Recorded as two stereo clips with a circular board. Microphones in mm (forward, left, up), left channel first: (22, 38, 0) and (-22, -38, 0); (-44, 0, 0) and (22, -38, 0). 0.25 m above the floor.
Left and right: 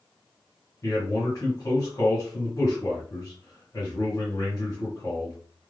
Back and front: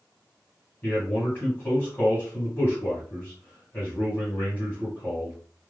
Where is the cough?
No cough in this recording.